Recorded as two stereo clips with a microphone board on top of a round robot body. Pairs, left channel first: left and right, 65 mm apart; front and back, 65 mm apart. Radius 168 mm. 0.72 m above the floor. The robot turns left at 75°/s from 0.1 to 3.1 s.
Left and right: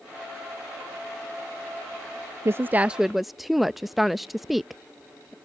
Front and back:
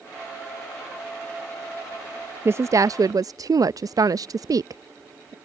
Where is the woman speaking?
130° right; by 5.3 s 175° right.